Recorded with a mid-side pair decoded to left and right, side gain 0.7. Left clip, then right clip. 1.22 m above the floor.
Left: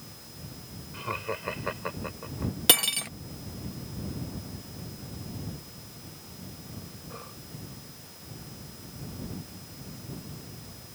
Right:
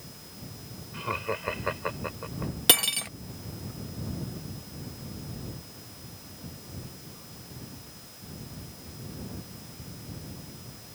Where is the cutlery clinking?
Straight ahead.